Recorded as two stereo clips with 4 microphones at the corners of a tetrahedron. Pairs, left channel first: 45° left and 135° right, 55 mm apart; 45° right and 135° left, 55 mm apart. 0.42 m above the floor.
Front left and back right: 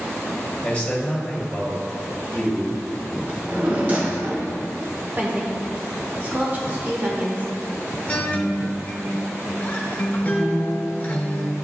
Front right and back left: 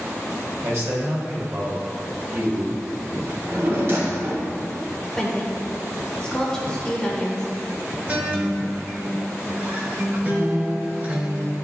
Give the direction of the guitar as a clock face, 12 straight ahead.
9 o'clock.